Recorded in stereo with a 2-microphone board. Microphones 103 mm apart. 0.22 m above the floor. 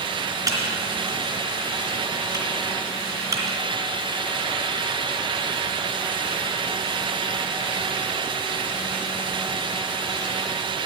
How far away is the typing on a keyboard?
About 2.5 m.